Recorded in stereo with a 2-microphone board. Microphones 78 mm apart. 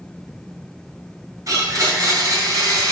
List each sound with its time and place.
1.5 s a blender: 50° right (ahead or behind), 3 m